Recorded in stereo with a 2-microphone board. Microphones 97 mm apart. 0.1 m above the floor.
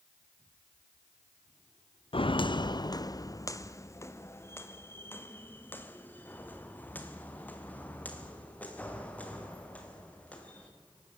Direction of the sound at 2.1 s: 70° left (ahead or behind).